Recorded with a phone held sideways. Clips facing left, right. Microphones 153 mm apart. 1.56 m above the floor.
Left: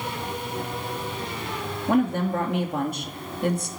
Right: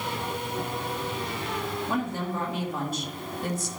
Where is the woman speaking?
55° left (ahead or behind), 2.5 m.